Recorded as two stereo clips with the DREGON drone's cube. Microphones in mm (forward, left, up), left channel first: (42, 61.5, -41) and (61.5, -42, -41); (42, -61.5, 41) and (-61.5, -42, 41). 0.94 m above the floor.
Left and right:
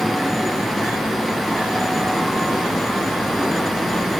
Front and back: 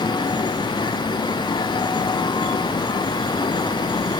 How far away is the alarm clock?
I don't hear an alarm clock.